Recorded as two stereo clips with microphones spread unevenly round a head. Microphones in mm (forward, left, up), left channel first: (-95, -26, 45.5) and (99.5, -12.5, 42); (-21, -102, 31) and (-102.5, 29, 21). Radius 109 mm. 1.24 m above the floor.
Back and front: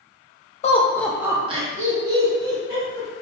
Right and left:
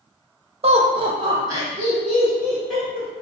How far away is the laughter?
About 0.5 m.